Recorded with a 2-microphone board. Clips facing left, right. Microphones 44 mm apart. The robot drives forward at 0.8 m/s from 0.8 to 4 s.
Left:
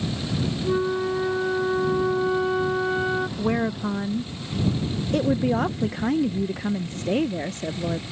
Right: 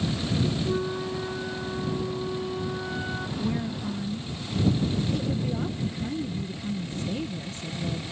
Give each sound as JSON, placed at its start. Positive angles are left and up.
{"t": 0.6, "sound": "a flute", "side_deg": 30}
{"t": 3.4, "sound": "a woman speaking", "side_deg": 50}